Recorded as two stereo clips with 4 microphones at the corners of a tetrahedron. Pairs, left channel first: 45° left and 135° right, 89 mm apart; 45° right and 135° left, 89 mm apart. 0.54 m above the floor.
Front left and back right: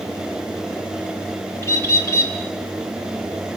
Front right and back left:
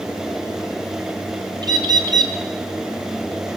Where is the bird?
105° left, 3 m.